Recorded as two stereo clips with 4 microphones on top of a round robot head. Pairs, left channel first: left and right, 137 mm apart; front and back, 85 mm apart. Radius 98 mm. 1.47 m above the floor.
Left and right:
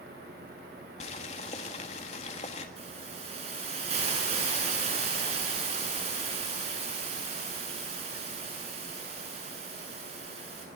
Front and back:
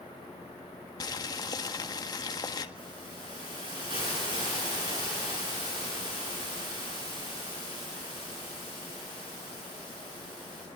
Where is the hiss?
135° right, 10 m.